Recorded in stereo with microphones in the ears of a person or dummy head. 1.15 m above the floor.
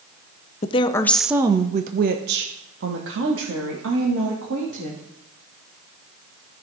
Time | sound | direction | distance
0.6 | a woman speaking | 30° left (ahead or behind) | 0.6 m